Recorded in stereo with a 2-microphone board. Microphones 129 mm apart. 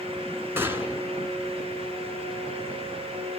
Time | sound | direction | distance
0.6 | a gunshot | 15° right (ahead or behind) | 2.0 m